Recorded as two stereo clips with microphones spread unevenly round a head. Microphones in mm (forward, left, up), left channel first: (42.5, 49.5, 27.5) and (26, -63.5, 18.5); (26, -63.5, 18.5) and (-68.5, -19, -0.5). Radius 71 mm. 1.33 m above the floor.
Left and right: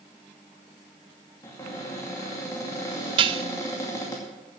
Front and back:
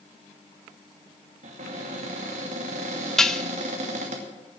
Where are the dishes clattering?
90° right, 0.5 m.